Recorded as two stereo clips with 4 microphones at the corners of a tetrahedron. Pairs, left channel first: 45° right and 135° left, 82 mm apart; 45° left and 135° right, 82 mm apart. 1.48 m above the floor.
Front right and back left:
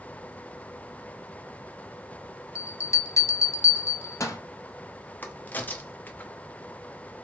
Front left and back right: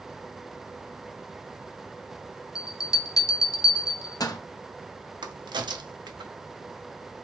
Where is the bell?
5° left, 0.5 m.